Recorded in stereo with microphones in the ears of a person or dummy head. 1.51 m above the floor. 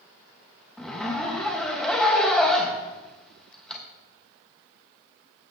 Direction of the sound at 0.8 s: 5° left (ahead or behind).